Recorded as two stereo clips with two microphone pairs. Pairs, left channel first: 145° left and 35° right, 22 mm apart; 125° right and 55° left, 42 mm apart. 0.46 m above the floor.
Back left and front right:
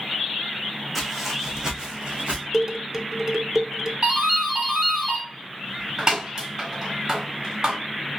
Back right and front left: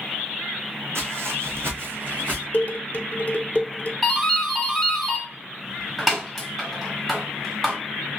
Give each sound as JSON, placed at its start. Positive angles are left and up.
{"t": 0.9, "sound": "footsteps", "azimuth_deg": 55, "distance_m": 1.1}
{"t": 2.5, "sound": "dishes clattering", "azimuth_deg": -100, "distance_m": 0.5}
{"t": 4.0, "sound": "a doorbell", "azimuth_deg": -30, "distance_m": 1.5}